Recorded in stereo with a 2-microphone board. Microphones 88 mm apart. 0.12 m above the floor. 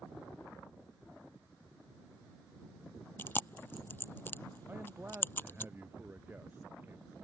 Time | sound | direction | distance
3.2 | chewing | 25° left (ahead or behind) | ?
4.7 | a man speaking | 20° right (ahead or behind) | ?